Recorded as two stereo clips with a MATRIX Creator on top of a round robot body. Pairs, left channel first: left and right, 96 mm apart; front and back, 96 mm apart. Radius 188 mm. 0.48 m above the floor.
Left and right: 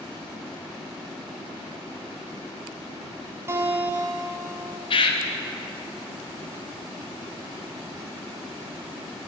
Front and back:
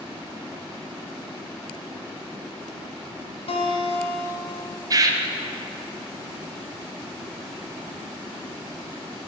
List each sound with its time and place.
3.5 s a guitar: 25° right, 1.3 m
4.9 s a bird: 125° left, 0.6 m